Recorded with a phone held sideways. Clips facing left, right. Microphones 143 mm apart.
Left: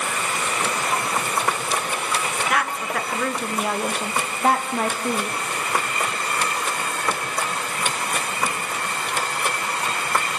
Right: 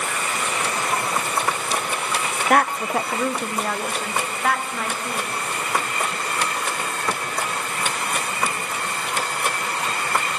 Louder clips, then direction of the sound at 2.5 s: Right 8 dB; 50° right (ahead or behind).